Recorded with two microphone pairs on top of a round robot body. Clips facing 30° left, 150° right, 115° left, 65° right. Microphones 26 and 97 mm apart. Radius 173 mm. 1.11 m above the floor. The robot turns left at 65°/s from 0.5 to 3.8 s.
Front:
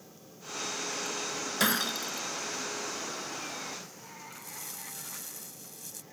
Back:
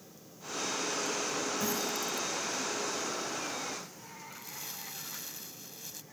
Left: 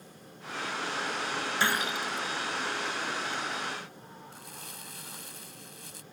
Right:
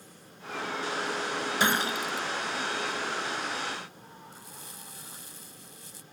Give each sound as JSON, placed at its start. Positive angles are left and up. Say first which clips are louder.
{"t": 1.6, "sound": "breaking glass", "louder": "front 4 dB, right 3 dB", "azimuth_deg": 10}
{"t": 4.3, "sound": "crumpling", "louder": "back 2 dB, left 1 dB", "azimuth_deg": 145}